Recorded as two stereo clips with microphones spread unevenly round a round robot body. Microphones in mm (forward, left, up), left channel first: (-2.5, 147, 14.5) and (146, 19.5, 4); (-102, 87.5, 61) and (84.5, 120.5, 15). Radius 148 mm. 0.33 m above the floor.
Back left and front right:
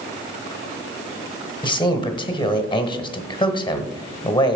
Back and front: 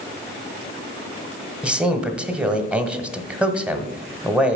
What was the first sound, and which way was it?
A man speaking, 80° left.